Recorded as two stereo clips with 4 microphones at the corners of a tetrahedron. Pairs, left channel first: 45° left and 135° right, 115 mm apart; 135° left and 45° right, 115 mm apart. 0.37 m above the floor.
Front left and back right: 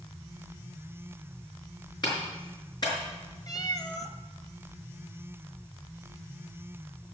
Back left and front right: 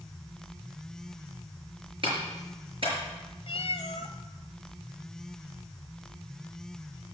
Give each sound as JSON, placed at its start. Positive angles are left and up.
{"t": 2.0, "sound": "a clap", "azimuth_deg": -5, "distance_m": 5.0}
{"t": 3.5, "sound": "a cat meowing", "azimuth_deg": 100, "distance_m": 0.9}